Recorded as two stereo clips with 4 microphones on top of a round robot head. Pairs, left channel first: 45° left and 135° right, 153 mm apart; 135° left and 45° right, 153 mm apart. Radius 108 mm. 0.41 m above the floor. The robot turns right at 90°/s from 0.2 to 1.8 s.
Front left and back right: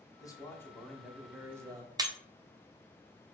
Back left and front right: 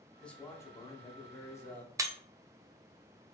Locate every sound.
0.2 s a man speaking: 55° left, 0.9 m; by 1.9 s 160° right, 0.9 m
2.0 s breaking glass: 95° right, 0.6 m